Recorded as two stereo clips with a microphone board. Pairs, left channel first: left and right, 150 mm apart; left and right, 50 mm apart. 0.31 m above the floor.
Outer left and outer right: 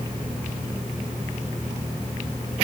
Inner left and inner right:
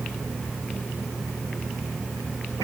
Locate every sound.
Only background noise.